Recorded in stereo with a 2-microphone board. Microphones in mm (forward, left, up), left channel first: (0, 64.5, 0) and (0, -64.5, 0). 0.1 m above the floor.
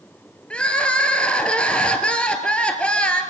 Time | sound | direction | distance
0.5 | crying | 10° left (ahead or behind) | 2.0 m